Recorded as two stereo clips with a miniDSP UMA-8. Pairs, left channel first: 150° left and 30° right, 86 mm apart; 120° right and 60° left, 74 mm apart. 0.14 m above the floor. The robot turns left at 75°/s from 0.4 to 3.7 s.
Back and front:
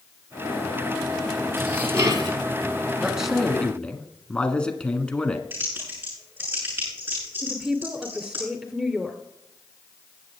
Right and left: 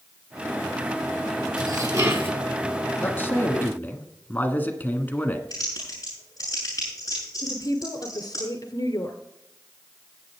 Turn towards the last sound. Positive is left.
turn(degrees=-110)